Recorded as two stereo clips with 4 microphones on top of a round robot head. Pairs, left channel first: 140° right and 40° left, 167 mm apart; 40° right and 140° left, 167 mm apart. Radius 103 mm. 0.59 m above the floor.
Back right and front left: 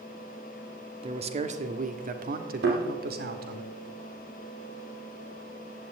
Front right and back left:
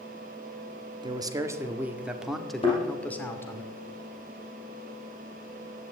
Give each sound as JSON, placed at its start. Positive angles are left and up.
{"t": 1.0, "sound": "a man speaking", "azimuth_deg": 85, "distance_m": 1.7}
{"t": 2.6, "sound": "a thud", "azimuth_deg": 20, "distance_m": 6.0}